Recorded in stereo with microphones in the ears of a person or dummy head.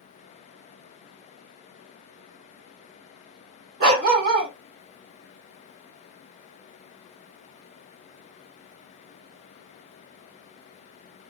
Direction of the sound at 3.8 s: 55° right (ahead or behind).